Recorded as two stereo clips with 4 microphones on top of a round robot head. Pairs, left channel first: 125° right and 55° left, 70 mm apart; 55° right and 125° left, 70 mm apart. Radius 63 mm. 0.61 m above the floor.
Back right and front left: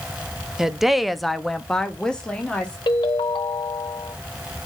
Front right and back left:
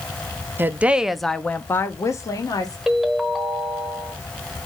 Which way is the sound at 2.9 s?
145° right.